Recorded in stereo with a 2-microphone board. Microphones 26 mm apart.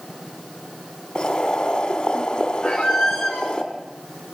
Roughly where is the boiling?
Left.